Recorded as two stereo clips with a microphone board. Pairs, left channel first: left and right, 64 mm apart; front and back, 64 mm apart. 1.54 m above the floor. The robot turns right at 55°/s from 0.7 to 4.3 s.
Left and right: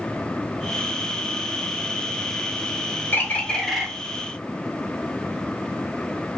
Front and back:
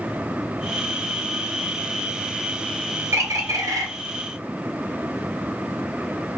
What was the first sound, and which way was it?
A bird, 140° left.